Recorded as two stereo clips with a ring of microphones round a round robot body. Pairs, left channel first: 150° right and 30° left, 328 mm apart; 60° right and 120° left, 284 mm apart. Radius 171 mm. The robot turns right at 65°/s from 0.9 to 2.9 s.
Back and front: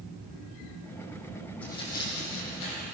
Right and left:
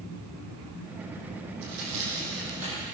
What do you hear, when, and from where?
1.6 s tearing paper: 125° left, 7.5 m; by 2.9 s 155° right, 7.5 m